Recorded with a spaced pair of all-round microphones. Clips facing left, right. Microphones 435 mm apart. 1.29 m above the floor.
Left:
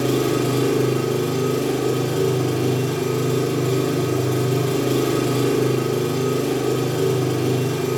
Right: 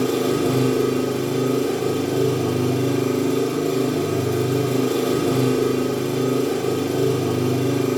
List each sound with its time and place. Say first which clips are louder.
0.0 s an engine running: even; 85° left, 1.2 m